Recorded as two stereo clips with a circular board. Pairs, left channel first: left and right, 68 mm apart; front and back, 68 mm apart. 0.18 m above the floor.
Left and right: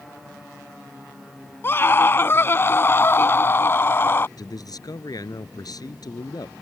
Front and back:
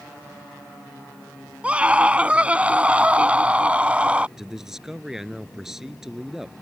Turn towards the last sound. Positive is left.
turn(degrees=95)